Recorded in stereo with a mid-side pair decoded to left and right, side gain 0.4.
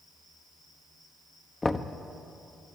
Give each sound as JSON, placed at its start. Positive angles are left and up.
{"t": 1.6, "sound": "knocking", "azimuth_deg": 20, "distance_m": 1.0}